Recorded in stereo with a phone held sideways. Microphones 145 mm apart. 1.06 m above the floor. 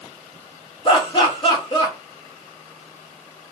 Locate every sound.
0.8 s laughter: 35° left (ahead or behind), 1.1 m